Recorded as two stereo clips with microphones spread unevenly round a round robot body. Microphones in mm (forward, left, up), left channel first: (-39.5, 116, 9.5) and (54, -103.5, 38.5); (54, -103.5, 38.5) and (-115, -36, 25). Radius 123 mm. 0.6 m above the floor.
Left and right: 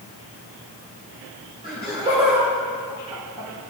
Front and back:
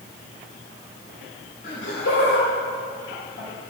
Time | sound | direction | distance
1.6 | laughter | straight ahead | 3.5 m